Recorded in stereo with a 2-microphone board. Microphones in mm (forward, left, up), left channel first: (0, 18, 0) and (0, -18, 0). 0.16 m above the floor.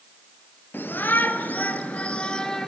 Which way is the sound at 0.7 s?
65° left (ahead or behind).